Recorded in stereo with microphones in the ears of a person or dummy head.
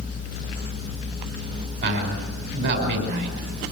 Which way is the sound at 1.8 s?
55° right (ahead or behind).